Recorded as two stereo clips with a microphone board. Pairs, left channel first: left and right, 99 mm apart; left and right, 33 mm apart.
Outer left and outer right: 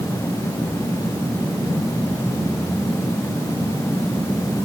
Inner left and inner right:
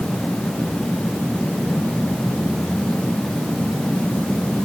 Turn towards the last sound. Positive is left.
No sound to turn to.